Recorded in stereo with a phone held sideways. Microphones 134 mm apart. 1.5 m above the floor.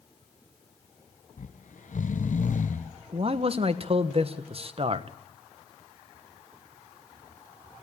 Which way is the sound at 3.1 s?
45° right (ahead or behind).